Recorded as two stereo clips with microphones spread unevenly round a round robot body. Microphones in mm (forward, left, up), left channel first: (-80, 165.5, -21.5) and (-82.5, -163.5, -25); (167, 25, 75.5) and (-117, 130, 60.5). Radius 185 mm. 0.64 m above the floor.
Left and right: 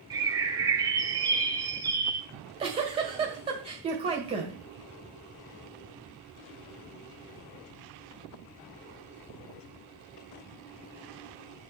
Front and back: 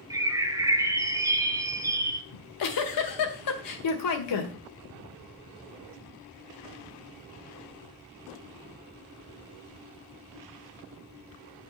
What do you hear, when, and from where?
0.1 s a bird: 150° right, 0.9 m
2.3 s a giggle: 15° right, 1.7 m